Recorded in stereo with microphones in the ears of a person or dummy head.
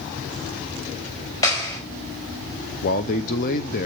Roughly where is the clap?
Centre.